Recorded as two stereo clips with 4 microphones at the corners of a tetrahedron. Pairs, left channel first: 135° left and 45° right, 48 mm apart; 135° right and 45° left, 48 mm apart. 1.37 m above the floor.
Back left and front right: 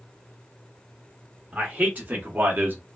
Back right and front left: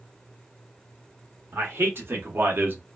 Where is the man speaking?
10° left, 1.3 m; by 2.8 s straight ahead, 0.7 m.